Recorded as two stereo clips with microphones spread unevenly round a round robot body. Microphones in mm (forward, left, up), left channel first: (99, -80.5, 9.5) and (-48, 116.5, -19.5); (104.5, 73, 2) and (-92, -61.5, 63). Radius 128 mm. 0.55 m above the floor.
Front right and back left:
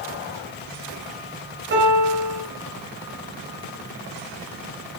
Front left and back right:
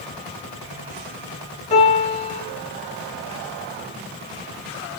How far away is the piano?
About 3.5 m.